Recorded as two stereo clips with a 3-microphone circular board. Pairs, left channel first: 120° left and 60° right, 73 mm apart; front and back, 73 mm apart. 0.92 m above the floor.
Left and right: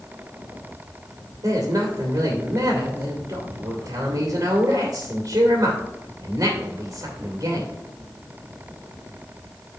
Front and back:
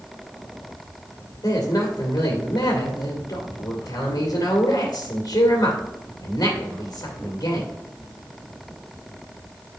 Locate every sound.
1.4 s a man speaking: 25° right, 2 m